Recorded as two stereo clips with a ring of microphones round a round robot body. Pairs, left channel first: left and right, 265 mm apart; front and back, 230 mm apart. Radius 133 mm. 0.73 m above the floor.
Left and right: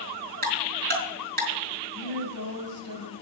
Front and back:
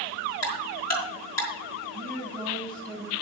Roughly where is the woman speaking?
Right.